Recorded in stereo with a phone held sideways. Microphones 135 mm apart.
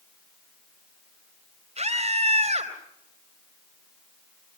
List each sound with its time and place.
1.8 s a scream: 55° right (ahead or behind), 3.5 m